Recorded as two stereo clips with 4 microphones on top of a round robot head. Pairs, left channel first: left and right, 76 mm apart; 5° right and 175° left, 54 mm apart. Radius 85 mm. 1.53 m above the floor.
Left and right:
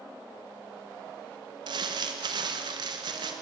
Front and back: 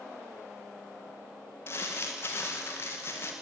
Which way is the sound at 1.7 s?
55° right.